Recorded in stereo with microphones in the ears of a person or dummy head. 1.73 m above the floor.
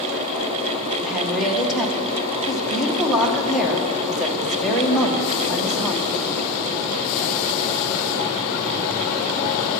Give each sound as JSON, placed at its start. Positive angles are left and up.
{"t": 1.0, "sound": "a woman speaking", "side_deg": 0, "distance_m": 1.9}